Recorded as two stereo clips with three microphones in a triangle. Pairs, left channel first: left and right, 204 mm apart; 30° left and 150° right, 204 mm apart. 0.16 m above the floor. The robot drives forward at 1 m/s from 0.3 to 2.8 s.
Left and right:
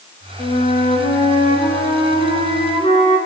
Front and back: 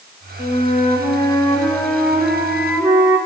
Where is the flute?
60° left, 2 m; by 3.2 s 140° left, 2.5 m.